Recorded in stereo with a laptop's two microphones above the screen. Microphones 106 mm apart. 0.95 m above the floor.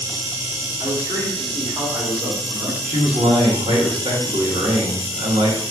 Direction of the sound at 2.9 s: 60° right (ahead or behind).